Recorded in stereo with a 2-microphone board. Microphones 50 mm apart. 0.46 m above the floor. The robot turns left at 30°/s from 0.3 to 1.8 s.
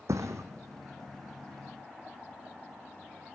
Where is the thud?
80° right, 2.5 m; by 0.4 s 75° right (ahead or behind), 2.5 m.